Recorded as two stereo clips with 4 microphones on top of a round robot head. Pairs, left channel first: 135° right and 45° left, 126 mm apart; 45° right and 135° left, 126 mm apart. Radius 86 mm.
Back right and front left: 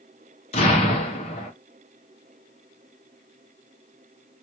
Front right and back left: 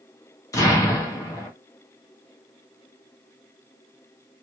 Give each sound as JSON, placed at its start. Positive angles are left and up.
{"t": 0.5, "sound": "an explosion", "azimuth_deg": -105, "distance_m": 0.7}